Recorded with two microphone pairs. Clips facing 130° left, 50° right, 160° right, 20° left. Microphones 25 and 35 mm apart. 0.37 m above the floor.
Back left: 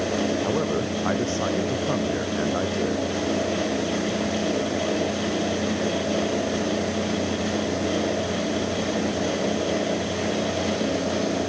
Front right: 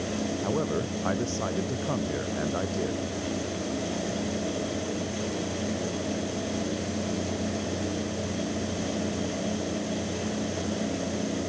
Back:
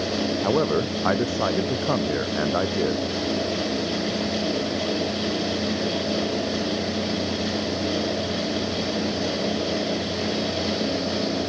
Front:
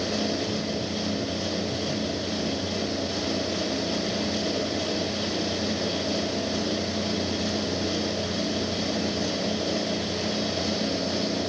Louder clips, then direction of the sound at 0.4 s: Back left 4 dB, back 8 dB; 155° right.